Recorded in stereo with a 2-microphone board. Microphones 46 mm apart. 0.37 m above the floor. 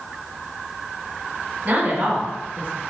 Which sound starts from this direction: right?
A woman speaking, at 1.6 s.